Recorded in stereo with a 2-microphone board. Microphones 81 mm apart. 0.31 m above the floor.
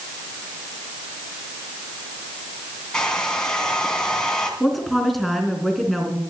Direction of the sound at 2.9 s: 10° left (ahead or behind).